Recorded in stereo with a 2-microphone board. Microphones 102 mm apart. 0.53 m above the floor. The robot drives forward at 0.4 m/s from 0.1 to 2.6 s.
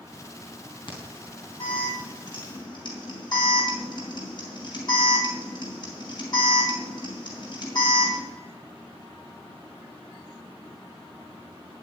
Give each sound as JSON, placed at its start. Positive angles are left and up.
{"t": 0.9, "sound": "an alarm", "side_deg": 55, "distance_m": 4.0}